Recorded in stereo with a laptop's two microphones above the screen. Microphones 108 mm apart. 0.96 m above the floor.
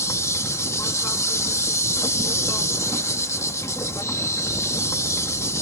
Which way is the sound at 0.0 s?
25° left (ahead or behind).